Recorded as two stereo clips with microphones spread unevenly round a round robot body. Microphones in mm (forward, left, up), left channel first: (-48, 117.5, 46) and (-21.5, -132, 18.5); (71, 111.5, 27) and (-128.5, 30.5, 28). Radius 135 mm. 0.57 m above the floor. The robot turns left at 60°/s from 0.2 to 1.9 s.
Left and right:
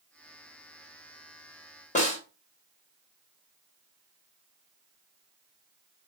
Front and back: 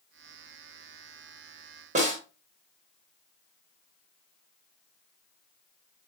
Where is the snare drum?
155° left, 1.1 m.